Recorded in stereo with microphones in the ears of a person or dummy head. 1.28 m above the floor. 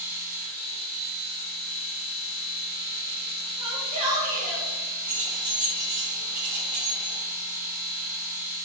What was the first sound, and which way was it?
A machine running, 60° right (ahead or behind).